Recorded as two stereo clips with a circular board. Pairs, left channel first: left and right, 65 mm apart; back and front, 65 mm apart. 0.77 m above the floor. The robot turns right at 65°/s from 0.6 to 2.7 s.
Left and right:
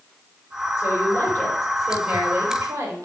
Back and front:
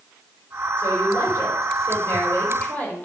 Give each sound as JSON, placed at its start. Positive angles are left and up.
{"t": 0.8, "sound": "a woman speaking", "azimuth_deg": 115, "distance_m": 2.5}